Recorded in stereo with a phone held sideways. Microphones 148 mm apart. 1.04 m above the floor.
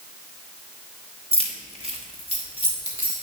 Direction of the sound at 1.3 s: 45° right (ahead or behind).